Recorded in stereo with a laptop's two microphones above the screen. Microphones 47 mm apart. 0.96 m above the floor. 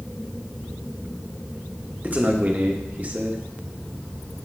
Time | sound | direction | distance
2.0 | a man speaking | 35° right (ahead or behind) | 1.0 m